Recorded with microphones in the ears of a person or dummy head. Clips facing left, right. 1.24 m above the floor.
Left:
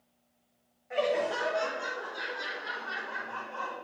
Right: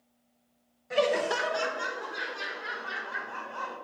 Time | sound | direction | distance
0.9 | laughter | 55° right (ahead or behind) | 0.9 m